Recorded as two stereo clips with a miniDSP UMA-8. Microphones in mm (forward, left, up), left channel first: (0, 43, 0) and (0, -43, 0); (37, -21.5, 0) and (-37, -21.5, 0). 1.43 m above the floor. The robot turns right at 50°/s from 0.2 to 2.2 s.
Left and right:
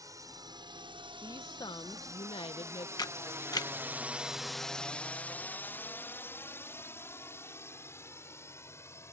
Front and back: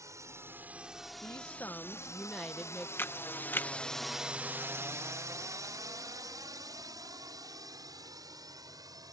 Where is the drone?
135° right; by 9.1 s 150° left.